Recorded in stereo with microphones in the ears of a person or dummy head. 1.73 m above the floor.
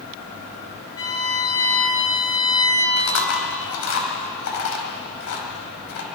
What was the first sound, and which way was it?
A violin, 20° left (ahead or behind).